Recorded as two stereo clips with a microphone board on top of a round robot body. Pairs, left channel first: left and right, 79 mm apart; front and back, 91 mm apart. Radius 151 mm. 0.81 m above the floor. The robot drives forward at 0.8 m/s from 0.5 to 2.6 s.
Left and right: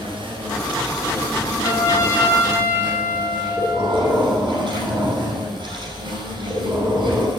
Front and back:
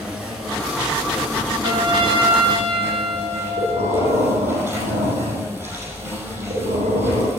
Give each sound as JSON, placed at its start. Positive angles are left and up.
{"t": 0.0, "sound": "an insect", "azimuth_deg": -100, "distance_m": 5.0}
{"t": 1.6, "sound": "a trumpet", "azimuth_deg": 135, "distance_m": 1.9}
{"t": 3.6, "sound": "breathing", "azimuth_deg": -170, "distance_m": 2.5}